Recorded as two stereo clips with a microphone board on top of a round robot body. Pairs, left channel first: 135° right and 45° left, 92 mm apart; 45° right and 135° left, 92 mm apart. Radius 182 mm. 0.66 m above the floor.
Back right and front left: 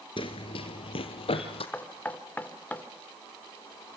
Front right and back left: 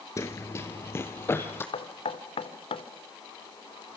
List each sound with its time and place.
0.2 s running footsteps: 105° right, 0.7 m; by 1.6 s 110° right, 2 m
1.7 s knocking: 60° right, 1.8 m